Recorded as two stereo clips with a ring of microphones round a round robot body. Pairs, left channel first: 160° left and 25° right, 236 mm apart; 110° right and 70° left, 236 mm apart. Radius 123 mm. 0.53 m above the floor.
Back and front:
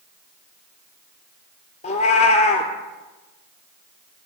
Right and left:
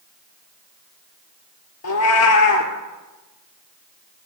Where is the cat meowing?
140° right, 1.6 m.